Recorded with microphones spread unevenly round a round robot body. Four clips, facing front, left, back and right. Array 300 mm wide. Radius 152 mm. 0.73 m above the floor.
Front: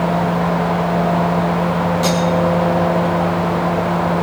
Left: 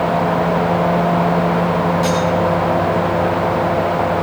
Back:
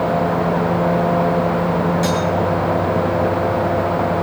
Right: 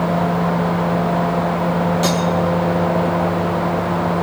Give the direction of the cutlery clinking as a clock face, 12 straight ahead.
4 o'clock.